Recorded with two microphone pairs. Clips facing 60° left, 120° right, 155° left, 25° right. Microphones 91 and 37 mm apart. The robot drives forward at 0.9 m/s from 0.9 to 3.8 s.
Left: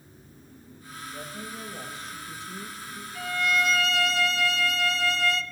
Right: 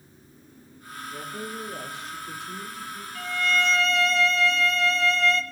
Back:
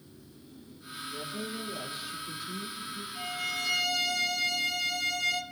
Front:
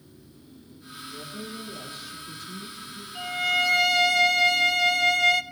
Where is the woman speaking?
125° right, 7 m; by 3.0 s 135° right, 8 m.